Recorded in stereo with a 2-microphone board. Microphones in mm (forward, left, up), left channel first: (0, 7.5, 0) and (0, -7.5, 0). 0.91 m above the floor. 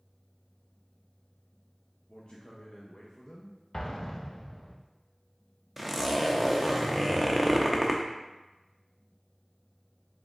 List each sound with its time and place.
2.1 s a man speaking: 60° left (ahead or behind), 0.7 m
3.7 s an explosion: 25° left (ahead or behind), 0.5 m
5.8 s a zipper: centre (ahead or behind), 0.5 m